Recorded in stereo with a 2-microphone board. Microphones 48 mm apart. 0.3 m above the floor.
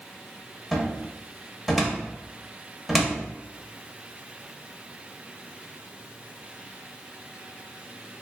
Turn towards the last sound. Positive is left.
turn(degrees=0)  # may be behind; listen again after turning